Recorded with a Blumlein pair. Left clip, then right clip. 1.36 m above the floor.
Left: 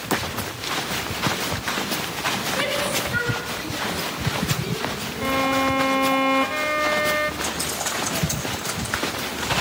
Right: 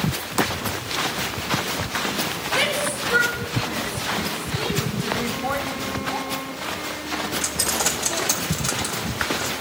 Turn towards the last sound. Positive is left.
turn(degrees=-35)